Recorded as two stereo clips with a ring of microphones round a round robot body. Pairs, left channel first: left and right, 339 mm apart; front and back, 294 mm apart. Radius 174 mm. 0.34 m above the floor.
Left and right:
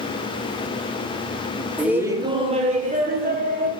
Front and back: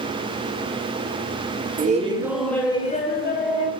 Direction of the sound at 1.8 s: 175° right.